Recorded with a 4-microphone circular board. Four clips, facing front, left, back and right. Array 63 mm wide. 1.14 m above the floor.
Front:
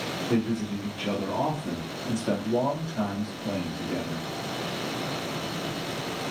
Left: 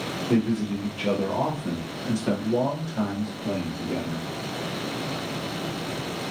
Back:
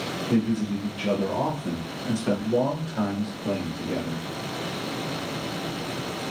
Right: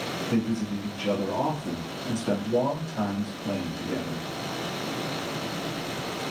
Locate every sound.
0.3 s a man speaking: 90° left, 1.2 m; by 4.3 s 170° left, 2 m